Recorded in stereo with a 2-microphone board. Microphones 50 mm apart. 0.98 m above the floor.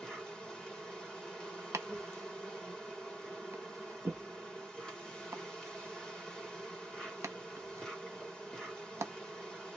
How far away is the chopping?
About 0.6 m.